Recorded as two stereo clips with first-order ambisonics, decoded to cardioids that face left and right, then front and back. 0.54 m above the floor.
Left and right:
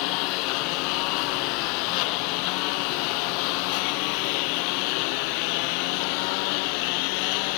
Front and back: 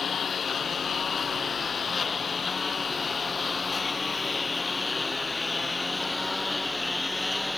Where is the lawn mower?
70° left; by 7.6 s 85° left.